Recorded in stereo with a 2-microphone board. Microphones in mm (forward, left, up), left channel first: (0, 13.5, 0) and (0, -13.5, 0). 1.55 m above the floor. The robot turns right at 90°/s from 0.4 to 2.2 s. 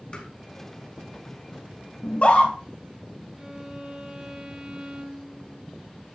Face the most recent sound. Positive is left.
turn(degrees=-35)  # may be behind; listen again after turning